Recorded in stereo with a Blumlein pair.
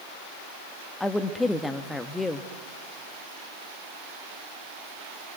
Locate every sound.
1.0 s a woman speaking: 10° left, 1.3 m